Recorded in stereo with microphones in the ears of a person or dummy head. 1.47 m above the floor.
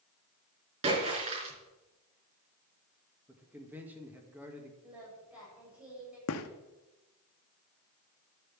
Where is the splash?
35° right (ahead or behind), 5 m.